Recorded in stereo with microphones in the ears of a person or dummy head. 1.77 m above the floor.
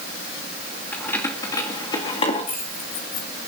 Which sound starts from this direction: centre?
Keys jangling, at 0.9 s.